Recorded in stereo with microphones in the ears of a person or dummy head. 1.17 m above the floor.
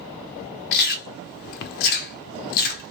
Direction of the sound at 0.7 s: 55° left (ahead or behind).